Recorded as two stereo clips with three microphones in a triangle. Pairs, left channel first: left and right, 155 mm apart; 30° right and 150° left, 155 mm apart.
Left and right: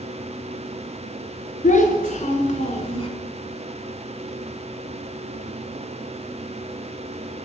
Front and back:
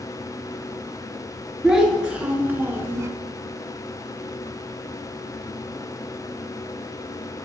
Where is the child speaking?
65° left, 1.3 m; by 3.1 s 95° left, 0.7 m.